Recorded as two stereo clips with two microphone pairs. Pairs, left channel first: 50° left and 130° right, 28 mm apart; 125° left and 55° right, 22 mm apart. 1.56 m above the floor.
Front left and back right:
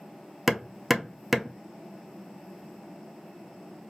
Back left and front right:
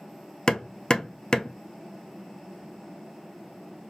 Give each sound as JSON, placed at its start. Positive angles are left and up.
{"t": 0.5, "sound": "hammering", "azimuth_deg": 155, "distance_m": 0.7}